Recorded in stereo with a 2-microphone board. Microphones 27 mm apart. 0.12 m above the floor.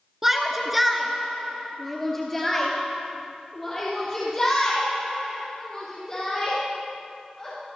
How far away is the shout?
About 1.2 m.